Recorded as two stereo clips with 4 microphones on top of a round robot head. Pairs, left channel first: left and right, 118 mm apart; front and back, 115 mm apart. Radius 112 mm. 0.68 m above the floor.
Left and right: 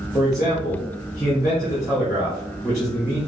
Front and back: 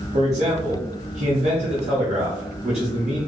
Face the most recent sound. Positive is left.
turn(degrees=175)